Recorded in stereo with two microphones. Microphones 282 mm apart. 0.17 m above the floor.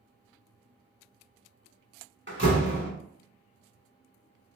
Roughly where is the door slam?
Right.